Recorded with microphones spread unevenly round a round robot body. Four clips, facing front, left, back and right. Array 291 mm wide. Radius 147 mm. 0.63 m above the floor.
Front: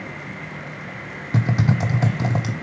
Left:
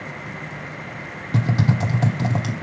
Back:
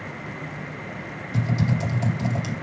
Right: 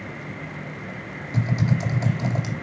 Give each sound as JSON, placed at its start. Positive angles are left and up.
{"t": 1.3, "sound": "typing on a keyboard", "azimuth_deg": 30, "distance_m": 1.2}